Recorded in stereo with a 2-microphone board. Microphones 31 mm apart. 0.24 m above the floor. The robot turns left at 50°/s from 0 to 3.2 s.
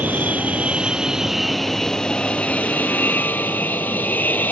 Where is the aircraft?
105° right; by 4.5 s 95° left.